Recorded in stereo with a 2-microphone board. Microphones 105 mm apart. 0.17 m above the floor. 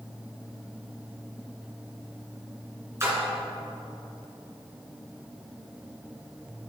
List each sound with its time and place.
3.0 s a splash: 25° right (ahead or behind), 2 m